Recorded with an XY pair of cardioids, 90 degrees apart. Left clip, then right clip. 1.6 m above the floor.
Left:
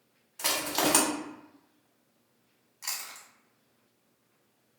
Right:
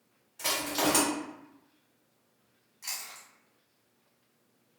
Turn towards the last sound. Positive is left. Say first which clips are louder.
# left 2 dB
turn(degrees=45)